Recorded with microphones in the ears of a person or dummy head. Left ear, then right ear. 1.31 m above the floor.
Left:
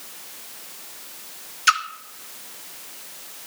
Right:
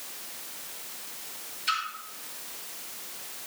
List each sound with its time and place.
1.7 s a splash: 65° left (ahead or behind), 0.8 m